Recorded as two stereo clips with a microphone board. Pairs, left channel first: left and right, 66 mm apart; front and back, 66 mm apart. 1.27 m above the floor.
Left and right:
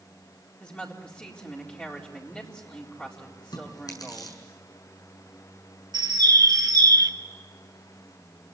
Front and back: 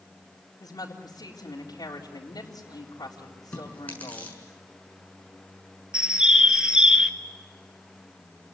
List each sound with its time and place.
0.6 s a woman speaking: 20° left, 4 m
3.5 s chewing: 70° left, 6.5 m
5.9 s a bird: 100° right, 1.4 m